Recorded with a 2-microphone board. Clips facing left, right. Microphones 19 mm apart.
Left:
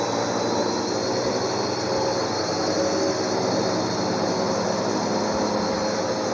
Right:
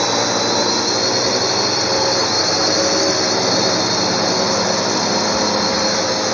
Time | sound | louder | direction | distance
0.0 | a drone | right 7 dB | 75° right (ahead or behind) | ?